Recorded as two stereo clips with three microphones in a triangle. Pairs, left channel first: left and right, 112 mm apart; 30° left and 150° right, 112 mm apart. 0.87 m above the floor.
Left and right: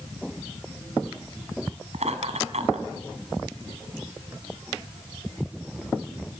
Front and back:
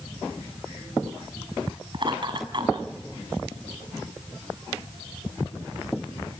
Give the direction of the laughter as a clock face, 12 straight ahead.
3 o'clock.